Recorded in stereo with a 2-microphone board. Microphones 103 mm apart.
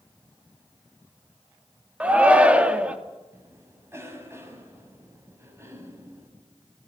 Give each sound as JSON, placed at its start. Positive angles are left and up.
{"t": 2.0, "sound": "a shout", "side_deg": -10, "distance_m": 2.5}
{"t": 3.3, "sound": "a cough", "side_deg": -25, "distance_m": 7.0}